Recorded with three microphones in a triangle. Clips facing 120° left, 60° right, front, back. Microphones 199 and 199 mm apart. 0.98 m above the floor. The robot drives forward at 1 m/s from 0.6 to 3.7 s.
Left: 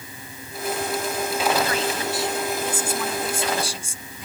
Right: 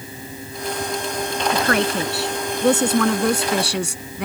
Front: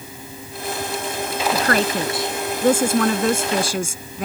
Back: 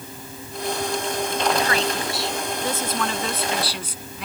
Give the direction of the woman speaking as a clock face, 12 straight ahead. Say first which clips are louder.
Right 4 dB, front 3 dB; 1 o'clock.